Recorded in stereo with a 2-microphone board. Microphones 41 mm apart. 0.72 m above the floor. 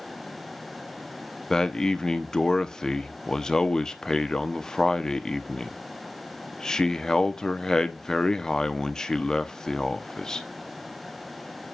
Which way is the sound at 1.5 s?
15° left (ahead or behind).